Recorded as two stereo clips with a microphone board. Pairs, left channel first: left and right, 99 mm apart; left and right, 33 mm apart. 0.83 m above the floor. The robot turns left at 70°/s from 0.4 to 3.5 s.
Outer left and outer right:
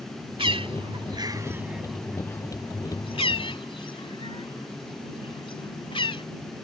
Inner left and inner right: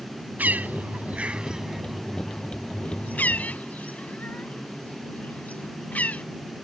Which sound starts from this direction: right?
A bird, at 0.4 s.